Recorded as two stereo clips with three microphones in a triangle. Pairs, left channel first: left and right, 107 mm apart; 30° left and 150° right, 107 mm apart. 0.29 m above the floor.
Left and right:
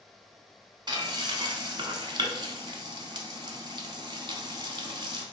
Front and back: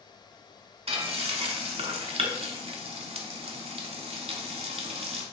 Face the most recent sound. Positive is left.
turn(degrees=-135)